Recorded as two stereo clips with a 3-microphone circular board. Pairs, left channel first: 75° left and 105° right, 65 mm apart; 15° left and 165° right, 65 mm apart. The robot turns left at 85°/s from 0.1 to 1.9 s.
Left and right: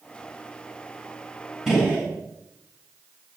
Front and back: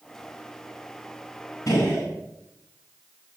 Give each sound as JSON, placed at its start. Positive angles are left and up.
{"t": 1.7, "sound": "a gunshot", "azimuth_deg": -20, "distance_m": 7.5}